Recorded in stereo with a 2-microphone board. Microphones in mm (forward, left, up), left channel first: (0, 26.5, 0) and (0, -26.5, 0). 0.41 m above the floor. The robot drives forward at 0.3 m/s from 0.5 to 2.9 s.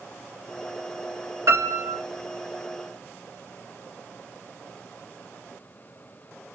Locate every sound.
1.5 s a piano: 70° right (ahead or behind), 2 m; by 2.0 s 65° right (ahead or behind), 2 m